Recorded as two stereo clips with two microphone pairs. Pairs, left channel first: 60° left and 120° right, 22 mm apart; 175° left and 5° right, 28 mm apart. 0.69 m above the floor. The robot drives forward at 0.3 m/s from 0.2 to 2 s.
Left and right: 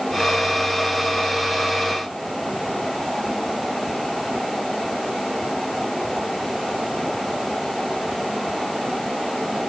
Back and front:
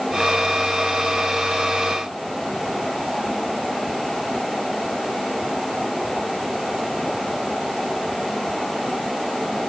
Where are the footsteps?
No footsteps in this recording.